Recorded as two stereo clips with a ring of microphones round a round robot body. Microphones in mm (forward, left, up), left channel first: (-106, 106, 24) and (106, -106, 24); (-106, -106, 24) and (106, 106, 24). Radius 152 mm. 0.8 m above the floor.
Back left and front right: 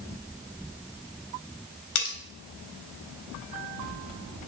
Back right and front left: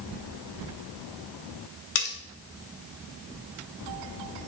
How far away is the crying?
No crying in this recording.